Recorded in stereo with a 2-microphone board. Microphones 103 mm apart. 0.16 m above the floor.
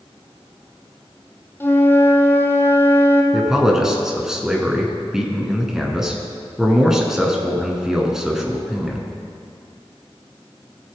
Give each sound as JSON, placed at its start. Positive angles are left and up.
{"t": 1.6, "sound": "a flute", "side_deg": 20, "distance_m": 1.0}
{"t": 3.3, "sound": "a man speaking", "side_deg": -5, "distance_m": 1.5}